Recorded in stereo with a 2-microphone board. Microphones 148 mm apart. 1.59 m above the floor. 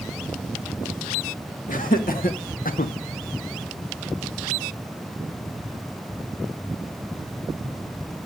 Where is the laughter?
65° left (ahead or behind), 2 m; by 2.9 s 50° left (ahead or behind), 0.9 m.